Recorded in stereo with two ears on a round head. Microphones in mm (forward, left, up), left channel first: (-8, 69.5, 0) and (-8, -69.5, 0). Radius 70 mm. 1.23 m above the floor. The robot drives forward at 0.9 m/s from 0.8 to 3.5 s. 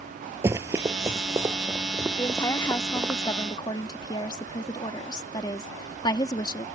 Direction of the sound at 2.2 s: 20° left (ahead or behind).